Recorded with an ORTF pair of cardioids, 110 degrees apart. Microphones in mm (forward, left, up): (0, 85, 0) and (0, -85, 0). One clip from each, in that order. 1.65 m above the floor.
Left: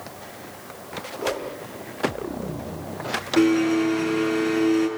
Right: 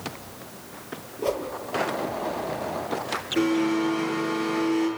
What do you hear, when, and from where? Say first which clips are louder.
1.2 s a whoosh: even; straight ahead, 7 m
3.4 s a blender: left 4 dB; 30° left, 9 m